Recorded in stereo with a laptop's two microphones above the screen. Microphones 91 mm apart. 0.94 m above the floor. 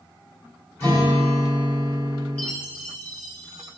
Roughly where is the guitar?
Left.